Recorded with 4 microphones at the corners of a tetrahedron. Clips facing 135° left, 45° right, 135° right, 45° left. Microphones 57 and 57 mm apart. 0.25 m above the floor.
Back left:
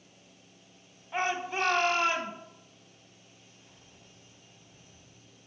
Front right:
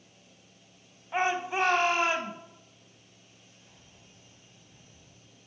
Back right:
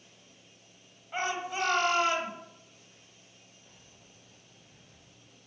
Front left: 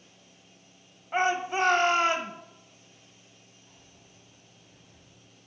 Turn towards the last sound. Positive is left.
turn(degrees=-120)